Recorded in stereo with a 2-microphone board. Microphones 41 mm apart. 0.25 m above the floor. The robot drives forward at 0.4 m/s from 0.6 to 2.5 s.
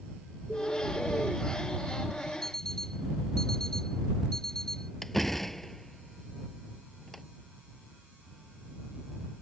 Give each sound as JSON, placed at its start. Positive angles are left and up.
{"t": 0.5, "sound": "a bird", "side_deg": 35}
{"t": 2.4, "sound": "an alarm clock", "side_deg": 10}
{"t": 5.0, "sound": "a door slam", "side_deg": 5}